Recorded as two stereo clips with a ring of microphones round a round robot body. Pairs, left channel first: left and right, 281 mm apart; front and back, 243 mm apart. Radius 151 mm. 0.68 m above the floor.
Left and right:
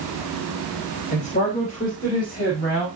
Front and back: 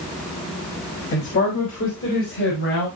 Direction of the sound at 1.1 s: 25° left.